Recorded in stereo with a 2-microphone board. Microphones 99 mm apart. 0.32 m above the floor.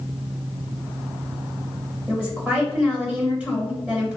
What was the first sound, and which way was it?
A woman speaking, 10° right (ahead or behind).